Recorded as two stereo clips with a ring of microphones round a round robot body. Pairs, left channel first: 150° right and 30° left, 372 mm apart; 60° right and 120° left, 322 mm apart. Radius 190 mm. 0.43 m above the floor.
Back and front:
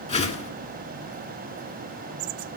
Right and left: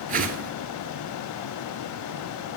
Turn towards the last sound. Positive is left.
turn(degrees=155)